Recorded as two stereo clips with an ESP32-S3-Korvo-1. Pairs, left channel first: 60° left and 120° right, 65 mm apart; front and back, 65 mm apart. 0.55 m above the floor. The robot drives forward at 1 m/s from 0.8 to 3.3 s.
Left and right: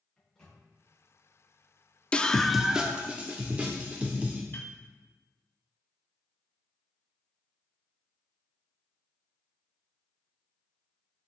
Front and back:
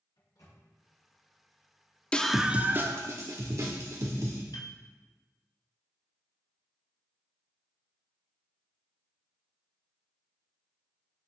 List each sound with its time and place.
0.2 s a microwave: 20° right, 5.5 m
2.1 s a scream: 35° left, 0.7 m; by 4.4 s 170° left, 1.2 m
4.5 s a piano: straight ahead, 1.5 m